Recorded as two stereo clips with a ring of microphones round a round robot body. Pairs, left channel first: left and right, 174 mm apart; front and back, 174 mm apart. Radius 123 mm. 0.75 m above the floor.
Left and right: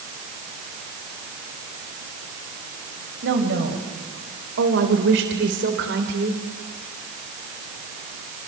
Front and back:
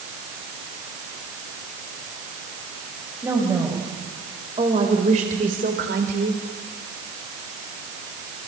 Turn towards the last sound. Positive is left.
turn(degrees=-140)